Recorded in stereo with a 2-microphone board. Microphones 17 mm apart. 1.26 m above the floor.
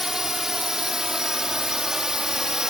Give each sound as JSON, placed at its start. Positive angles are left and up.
{"t": 0.0, "sound": "a drone", "side_deg": -35}